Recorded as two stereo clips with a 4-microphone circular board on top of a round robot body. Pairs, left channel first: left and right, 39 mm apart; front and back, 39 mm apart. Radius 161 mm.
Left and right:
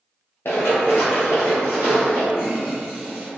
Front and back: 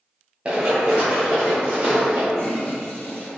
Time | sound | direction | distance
0.5 | running footsteps | 125° left | 0.6 m
2.3 | a toilet flushing | 25° right | 1.0 m